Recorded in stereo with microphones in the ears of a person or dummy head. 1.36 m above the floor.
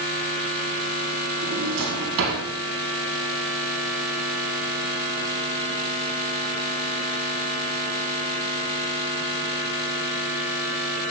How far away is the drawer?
About 5 m.